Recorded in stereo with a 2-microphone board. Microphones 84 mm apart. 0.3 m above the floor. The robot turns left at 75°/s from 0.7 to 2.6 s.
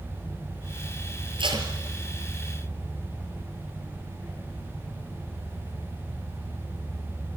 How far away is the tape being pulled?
About 4.5 m.